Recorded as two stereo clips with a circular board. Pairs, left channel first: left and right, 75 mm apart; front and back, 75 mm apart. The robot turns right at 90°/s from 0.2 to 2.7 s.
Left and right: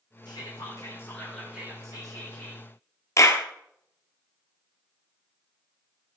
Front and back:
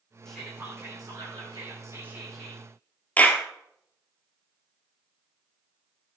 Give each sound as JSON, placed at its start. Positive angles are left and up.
{"t": 0.2, "sound": "whispering", "azimuth_deg": 80, "distance_m": 5.0}
{"t": 3.2, "sound": "a clap", "azimuth_deg": 60, "distance_m": 1.4}